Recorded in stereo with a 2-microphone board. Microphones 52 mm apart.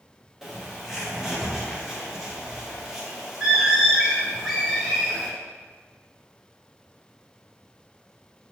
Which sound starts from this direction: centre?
A bird, at 0.4 s.